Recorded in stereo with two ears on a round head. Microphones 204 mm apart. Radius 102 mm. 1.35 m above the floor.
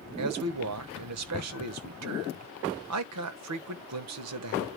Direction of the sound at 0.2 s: 75° right (ahead or behind).